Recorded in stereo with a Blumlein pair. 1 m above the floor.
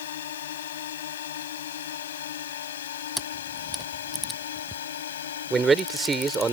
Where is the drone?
60° left; by 6.5 s 65° left.